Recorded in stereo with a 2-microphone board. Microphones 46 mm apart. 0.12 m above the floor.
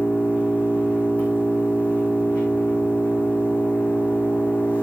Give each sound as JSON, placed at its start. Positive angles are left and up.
{"t": 0.0, "sound": "an engine running", "side_deg": 25, "distance_m": 3.0}